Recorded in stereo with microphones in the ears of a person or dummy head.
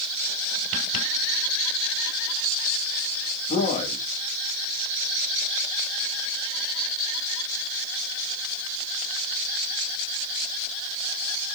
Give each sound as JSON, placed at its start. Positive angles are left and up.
{"t": 3.5, "sound": "a man speaking", "side_deg": 40, "distance_m": 2.5}